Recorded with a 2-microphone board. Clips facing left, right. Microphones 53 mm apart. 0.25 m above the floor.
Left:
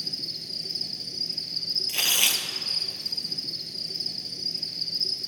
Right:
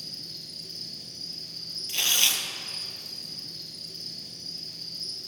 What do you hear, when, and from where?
0.0 s an insect: 75° left (ahead or behind), 1.4 m
1.9 s tearing paper: 20° left (ahead or behind), 1.1 m